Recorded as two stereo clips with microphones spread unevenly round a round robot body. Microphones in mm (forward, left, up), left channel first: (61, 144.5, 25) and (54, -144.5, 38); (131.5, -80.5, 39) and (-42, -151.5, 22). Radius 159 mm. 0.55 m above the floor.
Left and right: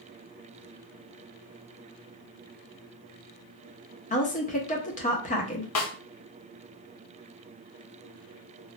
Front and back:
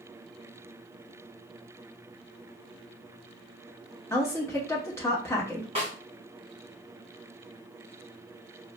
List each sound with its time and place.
4.1 s a woman speaking: 90° left, 0.8 m
5.8 s a snare drum: 130° left, 0.6 m